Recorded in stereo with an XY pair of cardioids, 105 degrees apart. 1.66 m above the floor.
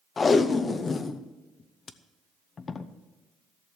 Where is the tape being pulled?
40° left, 0.9 m.